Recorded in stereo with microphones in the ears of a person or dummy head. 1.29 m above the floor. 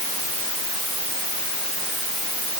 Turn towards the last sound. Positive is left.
No sound to turn to.